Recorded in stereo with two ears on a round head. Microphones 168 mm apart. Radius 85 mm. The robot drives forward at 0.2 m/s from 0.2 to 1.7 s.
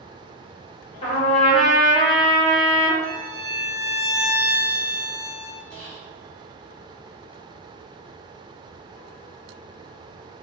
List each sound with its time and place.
1.0 s a trumpet: 35° left (ahead or behind), 1.5 m; by 2.9 s 30° left (ahead or behind), 1.7 m
3.0 s a violin: 15° right (ahead or behind), 0.6 m
5.7 s whispering: 15° right (ahead or behind), 1.7 m